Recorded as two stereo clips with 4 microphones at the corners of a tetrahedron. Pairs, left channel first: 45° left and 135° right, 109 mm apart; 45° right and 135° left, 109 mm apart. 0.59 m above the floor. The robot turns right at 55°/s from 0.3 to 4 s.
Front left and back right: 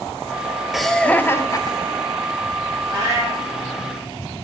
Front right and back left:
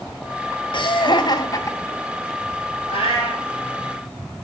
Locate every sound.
0.7 s laughter: 50° right, 0.8 m; by 2.3 s 40° left, 0.8 m
2.9 s a cat meowing: 30° right, 4.5 m; by 3.4 s straight ahead, 4.5 m